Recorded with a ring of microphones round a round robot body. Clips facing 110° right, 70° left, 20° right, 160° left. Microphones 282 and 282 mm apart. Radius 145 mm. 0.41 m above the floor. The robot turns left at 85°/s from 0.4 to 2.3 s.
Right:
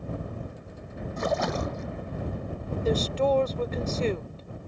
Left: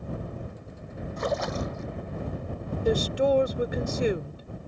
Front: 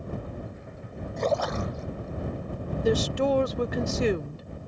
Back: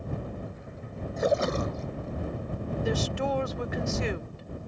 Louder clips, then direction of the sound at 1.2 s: Right 1 dB, back 1 dB; 115° right.